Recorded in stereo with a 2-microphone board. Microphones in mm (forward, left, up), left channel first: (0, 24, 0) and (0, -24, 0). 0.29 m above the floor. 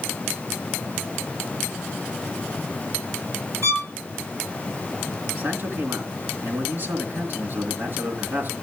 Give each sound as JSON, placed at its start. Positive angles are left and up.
{"t": 3.6, "sound": "a violin", "side_deg": -70, "distance_m": 4.0}
{"t": 5.4, "sound": "a man speaking", "side_deg": -45, "distance_m": 3.5}